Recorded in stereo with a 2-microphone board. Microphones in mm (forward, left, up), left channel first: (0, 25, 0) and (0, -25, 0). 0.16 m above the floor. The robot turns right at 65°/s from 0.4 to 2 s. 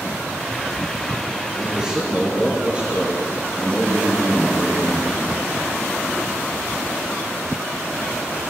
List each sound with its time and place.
1.6 s a man speaking: centre (ahead or behind), 3.5 m; by 5.2 s 25° right (ahead or behind), 3.5 m